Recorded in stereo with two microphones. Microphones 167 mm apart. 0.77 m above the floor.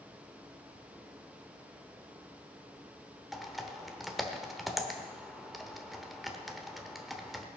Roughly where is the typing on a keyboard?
Centre.